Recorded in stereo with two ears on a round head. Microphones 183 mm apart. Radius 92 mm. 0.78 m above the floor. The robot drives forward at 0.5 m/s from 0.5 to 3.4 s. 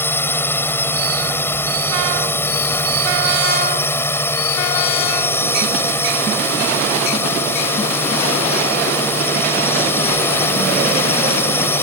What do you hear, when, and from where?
0.0 s a drone: 10° left (ahead or behind)